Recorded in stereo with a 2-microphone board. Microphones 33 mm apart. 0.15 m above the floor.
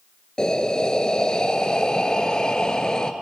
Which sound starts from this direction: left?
Breathing, at 0.4 s.